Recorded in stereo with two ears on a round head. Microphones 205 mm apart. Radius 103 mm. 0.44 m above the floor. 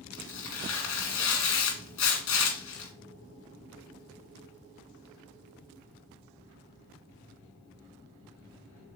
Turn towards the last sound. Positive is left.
turn(degrees=65)  # may be behind; listen again after turning